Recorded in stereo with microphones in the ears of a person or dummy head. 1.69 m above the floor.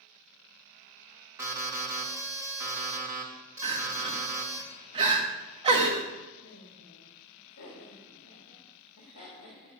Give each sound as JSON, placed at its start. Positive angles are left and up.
{"t": 1.4, "sound": "an alarm", "side_deg": -10, "distance_m": 1.7}
{"t": 3.6, "sound": "crying", "side_deg": -25, "distance_m": 1.6}
{"t": 6.4, "sound": "laughter", "side_deg": 60, "distance_m": 3.0}